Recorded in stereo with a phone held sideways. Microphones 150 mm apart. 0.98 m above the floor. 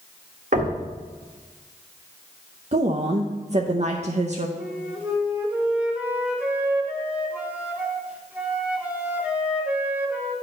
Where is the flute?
10° right (ahead or behind), 1.0 m.